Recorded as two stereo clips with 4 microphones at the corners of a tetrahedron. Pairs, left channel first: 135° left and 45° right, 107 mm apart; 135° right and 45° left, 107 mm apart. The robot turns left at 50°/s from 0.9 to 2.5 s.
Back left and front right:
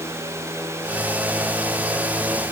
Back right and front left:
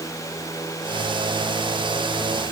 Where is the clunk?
I don't hear a clunk.